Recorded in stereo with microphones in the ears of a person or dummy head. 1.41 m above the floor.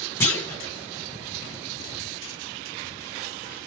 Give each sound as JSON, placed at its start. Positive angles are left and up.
{"t": 0.2, "sound": "a clunk", "side_deg": 10, "distance_m": 1.3}